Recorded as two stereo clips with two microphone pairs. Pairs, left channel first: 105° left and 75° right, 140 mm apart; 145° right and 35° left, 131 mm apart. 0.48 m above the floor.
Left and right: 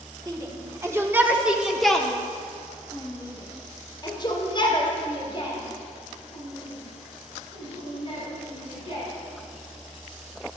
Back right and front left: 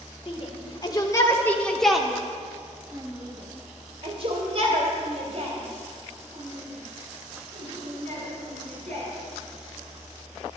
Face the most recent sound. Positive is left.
turn(degrees=55)